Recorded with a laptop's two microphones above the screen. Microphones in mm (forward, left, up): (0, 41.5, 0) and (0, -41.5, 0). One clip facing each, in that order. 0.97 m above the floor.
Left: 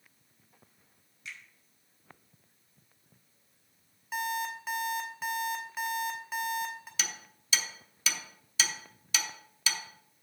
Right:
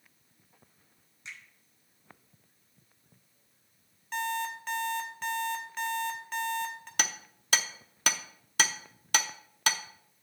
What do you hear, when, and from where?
1.2 s a finger snap: 30° right (ahead or behind), 1.9 m
4.1 s an alarm clock: 10° left (ahead or behind), 1.0 m
7.0 s hammering: 60° right (ahead or behind), 0.7 m